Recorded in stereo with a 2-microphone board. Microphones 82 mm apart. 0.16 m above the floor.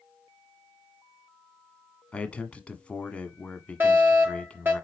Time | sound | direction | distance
2.1 | a man speaking | 15° left (ahead or behind) | 1.3 m
3.8 | a fire alarm | 25° right (ahead or behind) | 4.5 m